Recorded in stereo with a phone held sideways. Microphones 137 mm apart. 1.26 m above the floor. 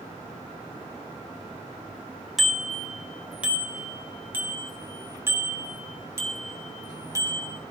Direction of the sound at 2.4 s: Centre (ahead or behind).